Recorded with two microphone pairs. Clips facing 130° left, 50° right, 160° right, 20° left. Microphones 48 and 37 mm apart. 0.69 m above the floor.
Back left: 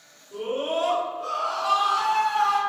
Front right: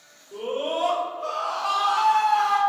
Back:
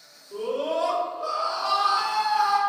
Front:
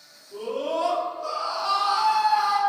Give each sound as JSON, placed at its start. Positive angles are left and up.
{"t": 0.3, "sound": "a scream", "azimuth_deg": -115, "distance_m": 1.8}